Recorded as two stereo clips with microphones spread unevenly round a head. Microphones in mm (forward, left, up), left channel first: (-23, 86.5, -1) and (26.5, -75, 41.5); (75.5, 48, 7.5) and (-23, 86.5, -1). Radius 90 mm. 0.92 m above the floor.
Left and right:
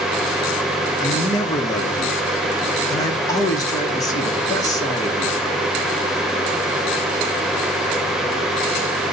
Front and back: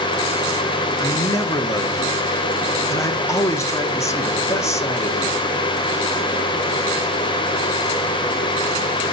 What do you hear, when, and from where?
1.0 s a man speaking: 40° left, 2 m